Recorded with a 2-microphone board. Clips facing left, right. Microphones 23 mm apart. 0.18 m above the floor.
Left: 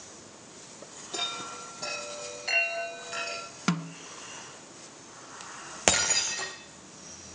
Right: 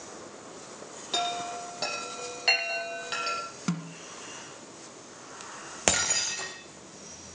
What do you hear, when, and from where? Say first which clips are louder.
1.1 s a chime: right 4 dB; 45° right (ahead or behind), 6 m
3.7 s a snare drum: left 5 dB; 30° left (ahead or behind), 0.9 m
5.9 s breaking glass: left 1 dB; 10° left (ahead or behind), 1.8 m